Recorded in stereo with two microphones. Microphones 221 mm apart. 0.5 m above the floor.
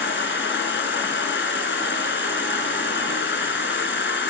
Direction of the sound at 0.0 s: 60° left (ahead or behind).